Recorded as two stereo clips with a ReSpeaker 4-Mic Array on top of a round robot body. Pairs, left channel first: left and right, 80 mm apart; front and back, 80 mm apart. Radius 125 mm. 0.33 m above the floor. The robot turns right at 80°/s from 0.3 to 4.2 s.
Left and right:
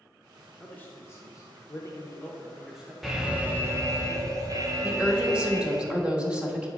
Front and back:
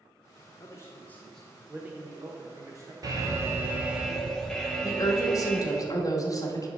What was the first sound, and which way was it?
A man speaking, 15° left.